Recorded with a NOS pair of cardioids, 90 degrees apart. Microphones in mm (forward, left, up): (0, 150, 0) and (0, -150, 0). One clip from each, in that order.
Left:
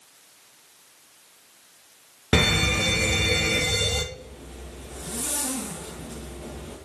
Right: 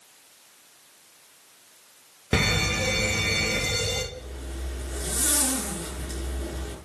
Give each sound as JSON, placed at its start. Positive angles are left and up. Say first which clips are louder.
{"t": 2.3, "sound": "a fire alarm", "louder": "left 3 dB", "azimuth_deg": 15, "distance_m": 2.5}
{"t": 4.1, "sound": "a zipper", "louder": "right 3 dB", "azimuth_deg": -60, "distance_m": 6.5}